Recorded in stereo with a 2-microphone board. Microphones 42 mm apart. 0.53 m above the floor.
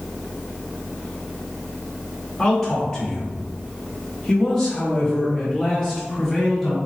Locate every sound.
2.4 s a man speaking: 10° left (ahead or behind), 1.6 m; by 6.8 s centre (ahead or behind), 2.0 m